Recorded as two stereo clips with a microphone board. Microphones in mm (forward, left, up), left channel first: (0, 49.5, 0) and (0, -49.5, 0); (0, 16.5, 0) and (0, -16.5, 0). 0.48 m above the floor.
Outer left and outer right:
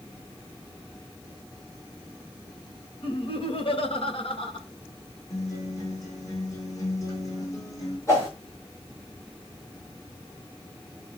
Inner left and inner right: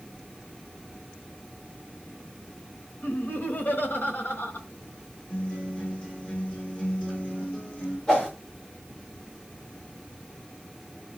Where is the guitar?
35° left (ahead or behind), 5.5 m.